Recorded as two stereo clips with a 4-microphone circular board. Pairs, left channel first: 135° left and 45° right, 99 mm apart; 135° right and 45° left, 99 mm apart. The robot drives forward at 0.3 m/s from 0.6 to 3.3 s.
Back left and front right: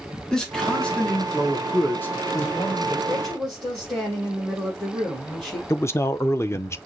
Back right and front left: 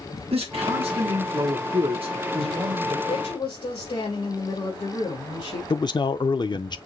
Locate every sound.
0.3 s a man speaking: 50° left, 1.5 m; by 3.0 s 80° left, 1.2 m
3.1 s a woman speaking: 145° right, 3 m
5.7 s a man speaking: 165° right, 0.5 m